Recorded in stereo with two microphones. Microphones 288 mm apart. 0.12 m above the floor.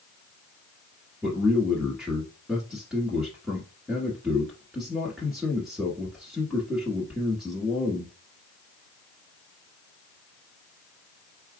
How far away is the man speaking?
About 1.3 m.